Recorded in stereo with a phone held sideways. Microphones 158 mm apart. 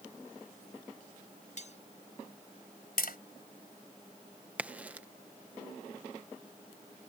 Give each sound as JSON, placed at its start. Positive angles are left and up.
{"t": 1.6, "sound": "cutlery clinking", "side_deg": 50}
{"t": 3.0, "sound": "tapping", "side_deg": 85}
{"t": 4.6, "sound": "a crack", "side_deg": -10}